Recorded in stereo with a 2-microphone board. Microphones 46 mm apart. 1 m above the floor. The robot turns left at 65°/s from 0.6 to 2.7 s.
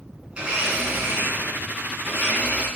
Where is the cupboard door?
I don't hear a cupboard door.